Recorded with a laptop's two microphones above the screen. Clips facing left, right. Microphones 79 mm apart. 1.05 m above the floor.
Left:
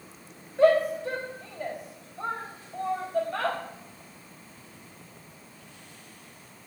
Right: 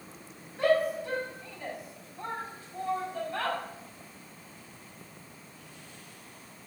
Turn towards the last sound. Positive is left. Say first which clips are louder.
# left 5 dB
turn(degrees=85)